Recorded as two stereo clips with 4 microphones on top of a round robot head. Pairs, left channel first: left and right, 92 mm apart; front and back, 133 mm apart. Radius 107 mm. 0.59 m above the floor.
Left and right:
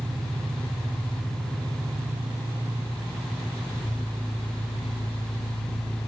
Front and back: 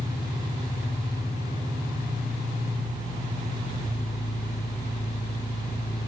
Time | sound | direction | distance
0.0 | an engine running | 25° right | 0.9 m